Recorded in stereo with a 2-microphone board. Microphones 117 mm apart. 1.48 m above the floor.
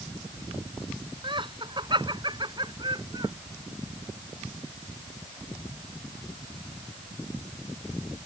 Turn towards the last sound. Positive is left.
turn(degrees=-40)  # may be behind; listen again after turning